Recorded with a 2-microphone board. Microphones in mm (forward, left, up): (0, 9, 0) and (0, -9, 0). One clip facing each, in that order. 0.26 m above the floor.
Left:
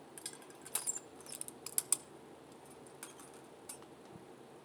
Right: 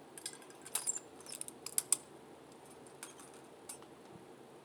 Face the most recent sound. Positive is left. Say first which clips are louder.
# right 1 dB
turn(degrees=-15)  # may be behind; listen again after turning